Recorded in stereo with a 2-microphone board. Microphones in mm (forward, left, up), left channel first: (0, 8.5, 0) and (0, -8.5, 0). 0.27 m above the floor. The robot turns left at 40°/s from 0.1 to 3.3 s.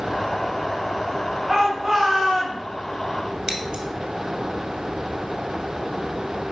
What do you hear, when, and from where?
1.5 s a shout: 20° right, 3.5 m; by 2.6 s 65° right, 3.5 m
3.5 s scissors: 50° right (ahead or behind), 2 m